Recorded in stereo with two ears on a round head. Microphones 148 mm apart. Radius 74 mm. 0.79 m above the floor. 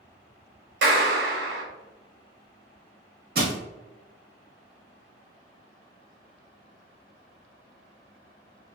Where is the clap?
70° right (ahead or behind), 1.0 m.